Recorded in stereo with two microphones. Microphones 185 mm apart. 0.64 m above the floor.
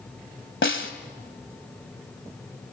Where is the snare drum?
85° left, 1.7 m.